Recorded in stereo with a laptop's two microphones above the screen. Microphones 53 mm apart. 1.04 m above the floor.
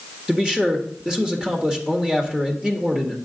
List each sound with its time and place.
0.3 s a man speaking: 15° right (ahead or behind), 1.5 m